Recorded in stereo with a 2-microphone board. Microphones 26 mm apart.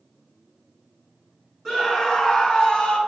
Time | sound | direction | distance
1.6 | a scream | 15° right (ahead or behind) | 2.5 m